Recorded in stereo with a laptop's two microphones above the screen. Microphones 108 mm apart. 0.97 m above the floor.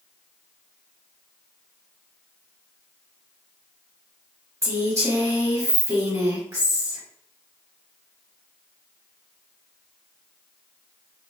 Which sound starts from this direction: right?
A woman speaking, at 4.6 s.